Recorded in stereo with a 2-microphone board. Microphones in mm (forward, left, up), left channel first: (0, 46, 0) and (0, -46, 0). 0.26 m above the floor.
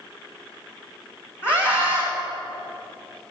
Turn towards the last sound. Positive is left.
turn(degrees=25)  # may be behind; listen again after turning